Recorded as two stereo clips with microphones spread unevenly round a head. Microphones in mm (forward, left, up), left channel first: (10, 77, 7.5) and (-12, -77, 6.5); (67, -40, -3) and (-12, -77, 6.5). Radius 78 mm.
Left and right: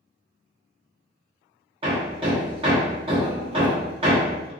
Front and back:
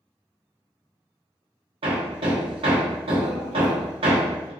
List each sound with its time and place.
1.8 s hammering: 150° right, 1.1 m